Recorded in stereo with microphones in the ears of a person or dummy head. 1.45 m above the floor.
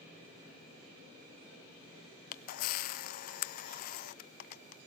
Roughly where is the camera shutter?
Left.